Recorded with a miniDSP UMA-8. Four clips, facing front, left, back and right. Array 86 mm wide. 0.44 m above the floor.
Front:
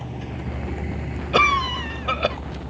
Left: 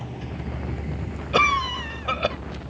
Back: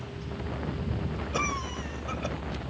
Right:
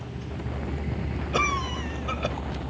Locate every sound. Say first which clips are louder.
0.0 s a vehicle: left 2 dB, front 5 dB; 30° left; by 2.7 s 60° right
1.3 s a cough: left 6 dB, front 14 dB; 25° left